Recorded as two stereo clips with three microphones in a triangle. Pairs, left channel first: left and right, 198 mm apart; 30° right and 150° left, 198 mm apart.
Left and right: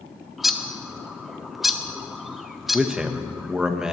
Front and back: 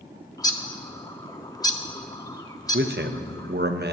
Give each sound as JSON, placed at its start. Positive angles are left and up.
{"t": 0.4, "sound": "a bird", "azimuth_deg": -5, "distance_m": 0.8}
{"t": 2.7, "sound": "a man speaking", "azimuth_deg": -175, "distance_m": 1.0}